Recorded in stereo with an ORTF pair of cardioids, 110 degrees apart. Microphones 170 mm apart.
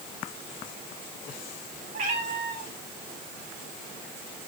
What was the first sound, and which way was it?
A cat meowing, 55° right.